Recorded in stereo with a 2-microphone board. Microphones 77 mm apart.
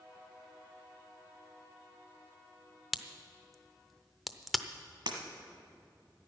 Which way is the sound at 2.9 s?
Centre (ahead or behind).